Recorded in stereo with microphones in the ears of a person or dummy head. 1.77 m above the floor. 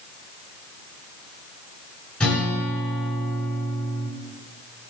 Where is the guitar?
5° left (ahead or behind), 5 m.